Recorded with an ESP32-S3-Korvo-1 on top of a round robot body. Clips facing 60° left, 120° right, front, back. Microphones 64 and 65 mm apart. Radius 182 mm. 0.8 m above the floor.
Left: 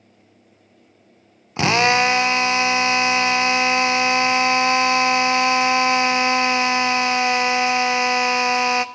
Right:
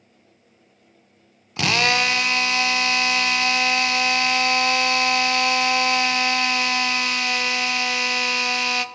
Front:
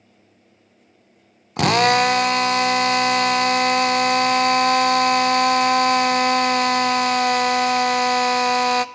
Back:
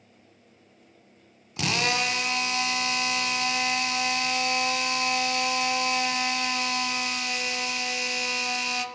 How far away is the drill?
About 0.5 m.